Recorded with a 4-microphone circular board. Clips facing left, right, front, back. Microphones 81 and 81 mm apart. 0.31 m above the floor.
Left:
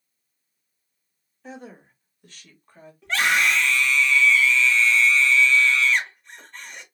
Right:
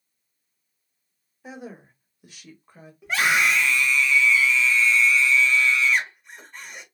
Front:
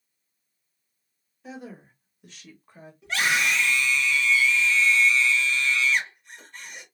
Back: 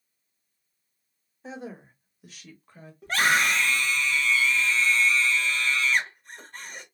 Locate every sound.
1.4 s a woman speaking: 160° right, 1.5 m; by 2.9 s 30° right, 1.3 m
3.0 s a scream: 165° right, 2 m